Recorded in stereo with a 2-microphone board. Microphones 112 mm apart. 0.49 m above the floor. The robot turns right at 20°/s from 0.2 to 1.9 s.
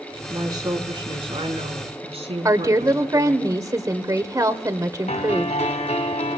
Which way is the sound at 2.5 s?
30° right (ahead or behind).